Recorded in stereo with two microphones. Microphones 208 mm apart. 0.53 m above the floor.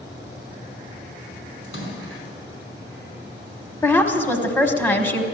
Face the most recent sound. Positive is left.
turn(degrees=15)  # may be behind; listen again after turning